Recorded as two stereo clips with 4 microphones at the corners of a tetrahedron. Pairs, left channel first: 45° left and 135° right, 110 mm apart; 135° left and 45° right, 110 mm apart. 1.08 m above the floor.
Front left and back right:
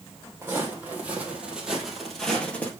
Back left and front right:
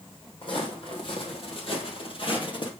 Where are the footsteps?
155° left, 2.5 m; by 2.7 s 115° left, 1.6 m.